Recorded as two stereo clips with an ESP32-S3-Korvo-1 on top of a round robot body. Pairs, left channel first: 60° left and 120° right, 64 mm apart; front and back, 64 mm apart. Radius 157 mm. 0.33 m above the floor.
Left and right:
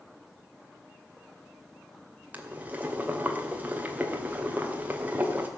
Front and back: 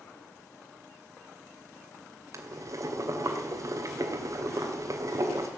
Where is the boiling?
Straight behind, 2.5 m.